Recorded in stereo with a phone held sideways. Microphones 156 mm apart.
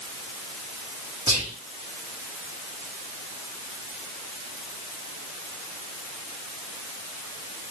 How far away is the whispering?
About 0.8 m.